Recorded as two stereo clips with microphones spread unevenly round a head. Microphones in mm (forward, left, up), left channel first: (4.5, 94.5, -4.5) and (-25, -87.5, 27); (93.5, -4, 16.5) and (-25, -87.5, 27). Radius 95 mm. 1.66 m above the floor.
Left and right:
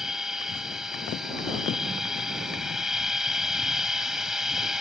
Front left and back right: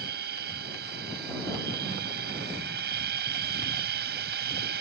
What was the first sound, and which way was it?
A machine running, 175° left.